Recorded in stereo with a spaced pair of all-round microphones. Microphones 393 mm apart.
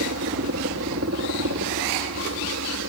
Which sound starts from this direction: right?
A helicopter, at 0.0 s.